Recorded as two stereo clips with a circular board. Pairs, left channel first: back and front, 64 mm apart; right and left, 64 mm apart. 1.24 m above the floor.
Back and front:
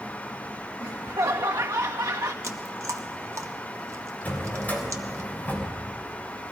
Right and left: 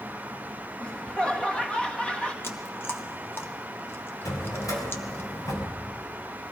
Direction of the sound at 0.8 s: 20° right.